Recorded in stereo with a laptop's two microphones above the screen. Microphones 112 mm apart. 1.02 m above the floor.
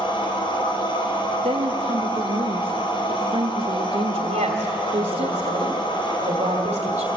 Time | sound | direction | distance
0.0 | a machine running | 50° left (ahead or behind) | 3.5 m
1.4 | a woman speaking | 55° right (ahead or behind) | 1.6 m
4.3 | a woman speaking | 80° right | 2.5 m